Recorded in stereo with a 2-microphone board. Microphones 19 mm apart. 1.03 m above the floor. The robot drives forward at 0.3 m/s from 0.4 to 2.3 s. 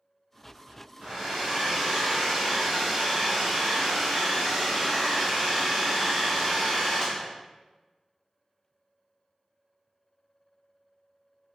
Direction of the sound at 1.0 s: 50° right (ahead or behind).